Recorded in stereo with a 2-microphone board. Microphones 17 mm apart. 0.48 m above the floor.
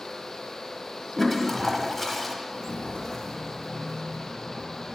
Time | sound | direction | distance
1.2 | a toilet flushing | 10° left (ahead or behind) | 0.8 m
2.5 | footsteps | 70° left (ahead or behind) | 1.1 m